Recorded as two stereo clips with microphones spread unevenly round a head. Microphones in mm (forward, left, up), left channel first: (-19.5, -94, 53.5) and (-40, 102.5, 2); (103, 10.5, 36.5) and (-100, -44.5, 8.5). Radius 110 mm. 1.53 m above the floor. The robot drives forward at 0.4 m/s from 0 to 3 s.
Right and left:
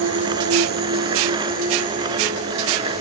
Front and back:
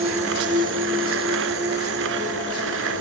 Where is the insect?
130° left, 1.0 m; by 3.0 s 155° left, 2 m.